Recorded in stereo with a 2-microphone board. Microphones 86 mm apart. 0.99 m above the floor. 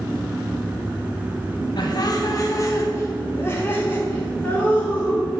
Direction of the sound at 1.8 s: 55° left (ahead or behind).